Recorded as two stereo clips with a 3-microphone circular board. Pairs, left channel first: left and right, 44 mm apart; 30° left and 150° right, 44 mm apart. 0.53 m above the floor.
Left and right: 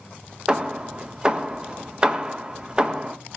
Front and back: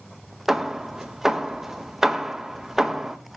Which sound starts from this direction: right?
Hammering, at 0.5 s.